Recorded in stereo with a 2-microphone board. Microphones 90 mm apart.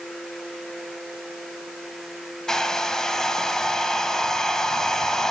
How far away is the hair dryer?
About 0.5 m.